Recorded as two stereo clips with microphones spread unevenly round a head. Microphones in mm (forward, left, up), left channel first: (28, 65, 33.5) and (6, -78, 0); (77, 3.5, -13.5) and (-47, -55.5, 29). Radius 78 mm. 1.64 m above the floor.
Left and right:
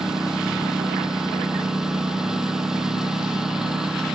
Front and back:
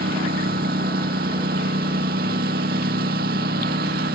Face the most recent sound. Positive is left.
turn(degrees=175)